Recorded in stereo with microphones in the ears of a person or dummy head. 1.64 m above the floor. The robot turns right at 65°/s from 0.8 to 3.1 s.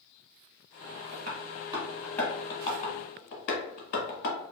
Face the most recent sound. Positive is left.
turn(degrees=50)  # may be behind; listen again after turning